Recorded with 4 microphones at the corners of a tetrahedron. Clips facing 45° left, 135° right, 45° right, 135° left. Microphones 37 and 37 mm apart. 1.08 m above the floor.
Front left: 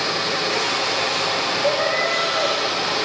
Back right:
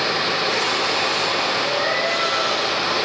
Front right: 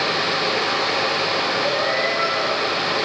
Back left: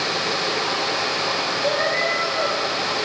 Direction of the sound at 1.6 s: 80° left.